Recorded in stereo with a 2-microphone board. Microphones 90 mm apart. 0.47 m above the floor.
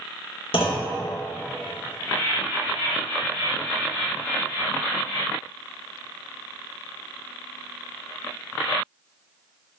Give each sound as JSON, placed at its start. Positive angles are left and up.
{"t": 0.5, "sound": "a clunk", "side_deg": 90, "distance_m": 0.5}